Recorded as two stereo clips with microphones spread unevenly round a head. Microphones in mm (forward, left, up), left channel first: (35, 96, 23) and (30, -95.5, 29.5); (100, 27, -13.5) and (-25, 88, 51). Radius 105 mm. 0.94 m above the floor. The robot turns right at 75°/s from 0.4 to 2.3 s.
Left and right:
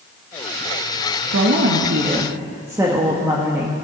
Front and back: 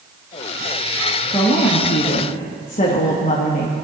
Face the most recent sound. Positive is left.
turn(degrees=-15)